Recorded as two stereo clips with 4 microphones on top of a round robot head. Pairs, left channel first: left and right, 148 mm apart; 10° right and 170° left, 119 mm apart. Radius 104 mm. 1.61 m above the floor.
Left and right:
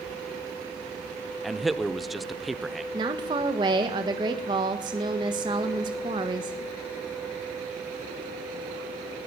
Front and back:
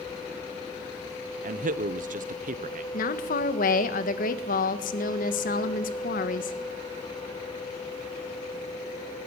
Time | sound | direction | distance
1.4 | a man speaking | straight behind | 1.2 m
2.9 | a woman speaking | 25° right | 1.5 m